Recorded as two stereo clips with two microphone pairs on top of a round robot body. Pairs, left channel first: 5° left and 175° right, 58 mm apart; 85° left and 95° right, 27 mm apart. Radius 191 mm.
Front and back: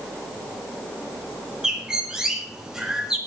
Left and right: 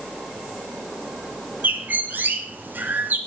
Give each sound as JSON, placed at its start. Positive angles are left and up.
{"t": 1.6, "sound": "a bird", "azimuth_deg": -95, "distance_m": 2.0}